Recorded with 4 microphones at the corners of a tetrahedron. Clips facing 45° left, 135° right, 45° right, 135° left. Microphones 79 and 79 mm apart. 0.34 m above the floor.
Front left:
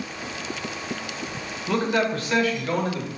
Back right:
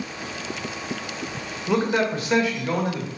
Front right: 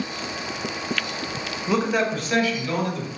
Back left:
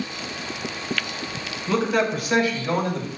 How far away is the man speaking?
About 1.4 m.